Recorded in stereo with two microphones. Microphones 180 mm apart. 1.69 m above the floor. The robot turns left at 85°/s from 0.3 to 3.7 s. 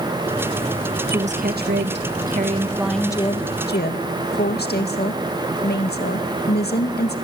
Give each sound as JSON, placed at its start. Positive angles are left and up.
{"t": 1.1, "sound": "a woman speaking", "azimuth_deg": -25, "distance_m": 1.9}